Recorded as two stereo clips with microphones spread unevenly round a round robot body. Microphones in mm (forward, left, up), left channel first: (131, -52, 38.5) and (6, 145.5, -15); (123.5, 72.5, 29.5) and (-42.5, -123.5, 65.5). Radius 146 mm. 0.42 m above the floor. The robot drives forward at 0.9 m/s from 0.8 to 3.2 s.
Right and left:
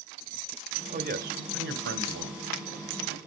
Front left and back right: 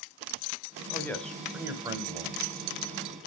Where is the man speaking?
110° left, 1.1 m; by 2.4 s 155° left, 1.9 m.